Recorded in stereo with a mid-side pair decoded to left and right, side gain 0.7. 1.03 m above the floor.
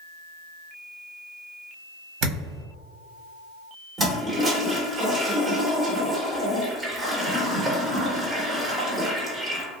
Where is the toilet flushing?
30° right, 1.0 m.